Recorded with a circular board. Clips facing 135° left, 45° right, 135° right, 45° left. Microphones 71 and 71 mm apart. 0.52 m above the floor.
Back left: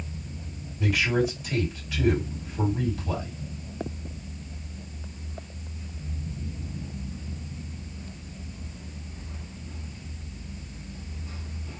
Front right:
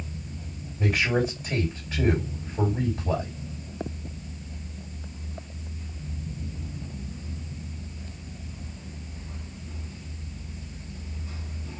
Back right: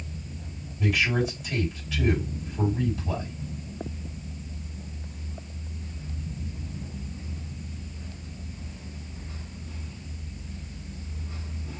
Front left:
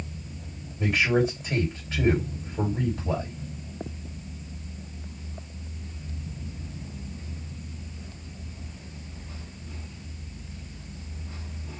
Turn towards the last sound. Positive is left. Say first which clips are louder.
# even, front left 2 dB
turn(degrees=5)